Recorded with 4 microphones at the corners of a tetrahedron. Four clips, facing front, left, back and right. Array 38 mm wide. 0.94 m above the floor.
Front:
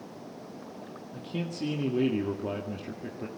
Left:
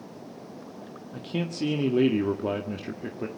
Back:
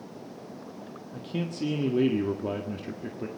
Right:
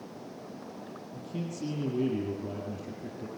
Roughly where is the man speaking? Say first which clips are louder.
Left 7 dB, back 2 dB; left.